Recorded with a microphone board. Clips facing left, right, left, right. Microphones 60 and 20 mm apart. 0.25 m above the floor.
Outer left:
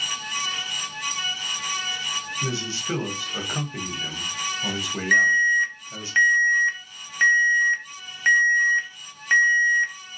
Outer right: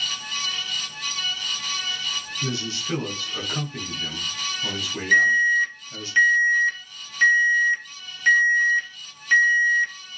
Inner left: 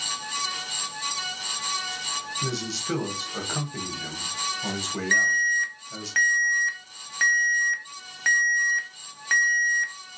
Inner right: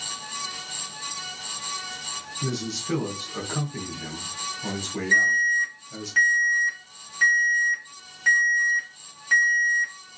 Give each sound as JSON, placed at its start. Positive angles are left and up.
{"t": 2.4, "sound": "a man speaking", "side_deg": 20, "distance_m": 1.0}
{"t": 5.1, "sound": "an alarm", "side_deg": 35, "distance_m": 0.9}